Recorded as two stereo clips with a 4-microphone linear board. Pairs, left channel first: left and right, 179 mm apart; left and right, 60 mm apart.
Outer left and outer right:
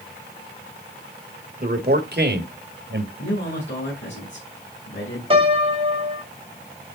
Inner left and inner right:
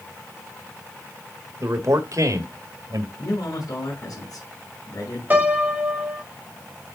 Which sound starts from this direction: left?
A man speaking, at 3.2 s.